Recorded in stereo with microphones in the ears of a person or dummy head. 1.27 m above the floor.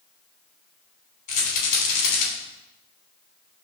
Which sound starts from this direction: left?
A rattle, at 1.3 s.